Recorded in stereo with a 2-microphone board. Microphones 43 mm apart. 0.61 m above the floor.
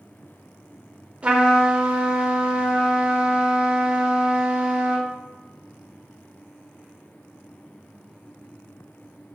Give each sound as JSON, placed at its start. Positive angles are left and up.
{"t": 1.2, "sound": "a trumpet", "side_deg": -30, "distance_m": 0.7}